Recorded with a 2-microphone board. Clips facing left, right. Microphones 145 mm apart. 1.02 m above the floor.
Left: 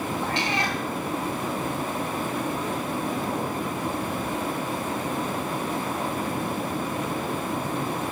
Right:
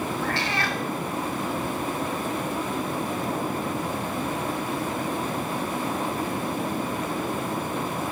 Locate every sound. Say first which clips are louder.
0.2 s a cat meowing: left 1 dB; 20° left (ahead or behind), 1.5 m